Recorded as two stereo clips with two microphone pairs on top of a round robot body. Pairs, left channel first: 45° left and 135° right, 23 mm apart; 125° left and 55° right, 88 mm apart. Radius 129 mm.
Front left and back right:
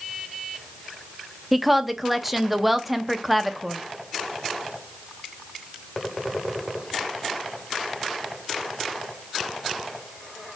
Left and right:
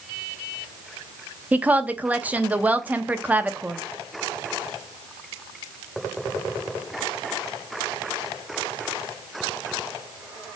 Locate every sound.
1.5 s a woman speaking: 90° right, 0.9 m